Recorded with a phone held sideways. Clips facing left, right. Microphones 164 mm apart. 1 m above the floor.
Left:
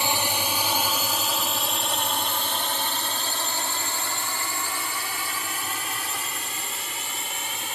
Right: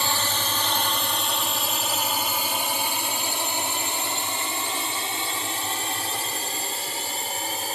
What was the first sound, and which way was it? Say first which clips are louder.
A drone: left 1 dB; 15° left (ahead or behind).